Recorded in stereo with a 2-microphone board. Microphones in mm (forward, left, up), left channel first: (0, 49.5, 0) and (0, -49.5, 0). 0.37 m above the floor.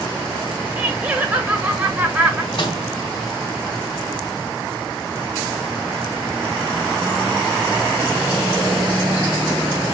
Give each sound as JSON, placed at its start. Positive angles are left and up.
{"t": 0.8, "sound": "laughter", "side_deg": -15, "distance_m": 1.3}
{"t": 2.5, "sound": "a microwave", "side_deg": 55, "distance_m": 2.0}